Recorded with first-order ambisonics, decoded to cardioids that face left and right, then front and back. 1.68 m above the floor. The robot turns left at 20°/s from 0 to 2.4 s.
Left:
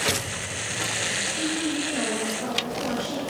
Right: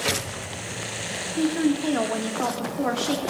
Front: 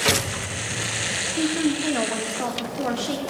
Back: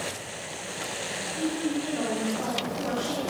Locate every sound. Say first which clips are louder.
1.4 s a woman speaking: right 3 dB, front 4 dB; 35° right, 2.0 m; by 3.2 s 55° right, 2.0 m